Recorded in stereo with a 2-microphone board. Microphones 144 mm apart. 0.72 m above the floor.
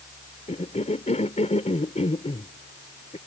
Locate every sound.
0.5 s a cough: 60° left (ahead or behind)